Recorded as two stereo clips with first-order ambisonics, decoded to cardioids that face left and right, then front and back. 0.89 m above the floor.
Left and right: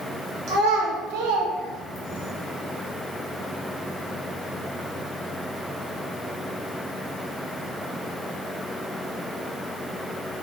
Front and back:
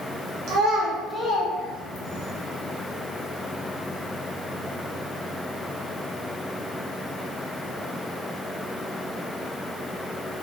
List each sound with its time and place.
0.5 s a child speaking: 140° right, 1.2 m; by 2.3 s 15° right, 1.5 m